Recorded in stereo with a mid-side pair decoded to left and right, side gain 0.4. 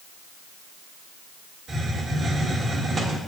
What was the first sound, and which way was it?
A hiss, 55° right.